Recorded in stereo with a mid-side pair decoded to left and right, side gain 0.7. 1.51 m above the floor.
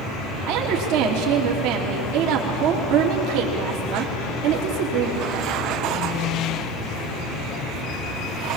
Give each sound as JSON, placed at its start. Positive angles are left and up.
{"t": 0.5, "sound": "a woman speaking", "azimuth_deg": -65, "distance_m": 3.0}